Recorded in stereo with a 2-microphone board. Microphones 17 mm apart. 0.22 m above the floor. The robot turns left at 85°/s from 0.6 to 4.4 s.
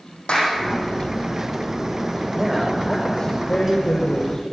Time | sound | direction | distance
0.3 | a clap | 80° left | 8.5 m
2.3 | a man speaking | 155° right | 8 m